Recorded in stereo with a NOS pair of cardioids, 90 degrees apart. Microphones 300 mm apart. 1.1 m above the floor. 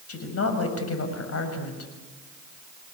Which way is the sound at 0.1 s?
50° left.